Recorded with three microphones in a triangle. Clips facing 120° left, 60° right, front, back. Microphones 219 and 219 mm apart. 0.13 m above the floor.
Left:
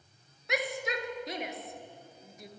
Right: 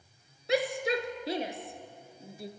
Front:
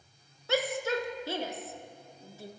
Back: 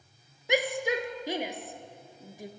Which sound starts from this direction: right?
A shout, at 0.5 s.